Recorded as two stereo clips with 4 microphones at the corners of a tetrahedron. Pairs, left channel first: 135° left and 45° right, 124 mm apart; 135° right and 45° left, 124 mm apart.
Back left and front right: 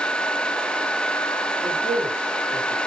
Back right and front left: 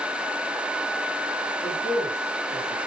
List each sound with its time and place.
1.6 s a man speaking: 65° right, 4.5 m